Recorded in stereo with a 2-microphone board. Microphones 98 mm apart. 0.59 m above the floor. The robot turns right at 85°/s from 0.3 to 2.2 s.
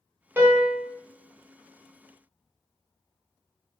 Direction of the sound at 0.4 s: 20° right (ahead or behind).